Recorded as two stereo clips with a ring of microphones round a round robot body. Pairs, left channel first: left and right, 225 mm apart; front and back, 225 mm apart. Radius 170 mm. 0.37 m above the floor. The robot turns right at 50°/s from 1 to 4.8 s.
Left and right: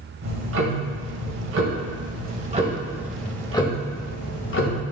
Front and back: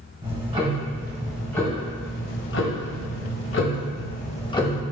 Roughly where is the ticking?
Right.